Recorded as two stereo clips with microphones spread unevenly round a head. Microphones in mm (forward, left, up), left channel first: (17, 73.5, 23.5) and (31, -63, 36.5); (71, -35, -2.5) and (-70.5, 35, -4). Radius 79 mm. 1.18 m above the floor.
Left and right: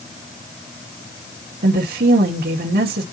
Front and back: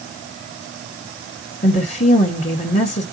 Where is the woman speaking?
75° right, 1.8 m.